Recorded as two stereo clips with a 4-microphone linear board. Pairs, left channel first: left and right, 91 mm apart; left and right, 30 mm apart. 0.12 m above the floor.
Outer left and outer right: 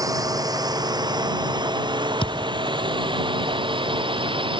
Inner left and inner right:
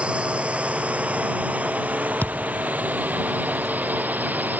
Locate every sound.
0.0 s a drone: 40° right (ahead or behind); by 4.6 s 65° right (ahead or behind)
2.2 s a thud: 75° left (ahead or behind)